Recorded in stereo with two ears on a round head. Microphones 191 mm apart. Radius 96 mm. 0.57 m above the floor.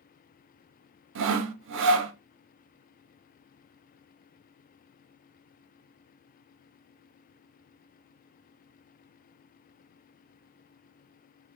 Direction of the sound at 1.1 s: 60° right (ahead or behind).